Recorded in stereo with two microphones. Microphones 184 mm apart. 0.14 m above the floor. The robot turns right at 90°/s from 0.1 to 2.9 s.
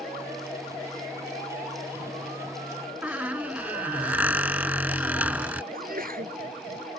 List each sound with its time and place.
3.0 s a squeak: 10° right (ahead or behind)
5.7 s a sneeze: 55° right (ahead or behind)